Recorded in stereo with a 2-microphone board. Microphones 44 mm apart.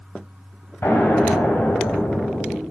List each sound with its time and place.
0.8 s an explosion: 65° left (ahead or behind), 3 m